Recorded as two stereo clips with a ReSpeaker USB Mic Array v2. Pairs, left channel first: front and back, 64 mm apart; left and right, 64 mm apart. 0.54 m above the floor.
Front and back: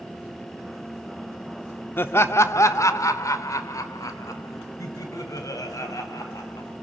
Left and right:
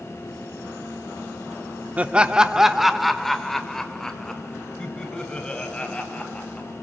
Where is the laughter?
35° right, 0.8 m; by 6.7 s 20° left, 3.5 m.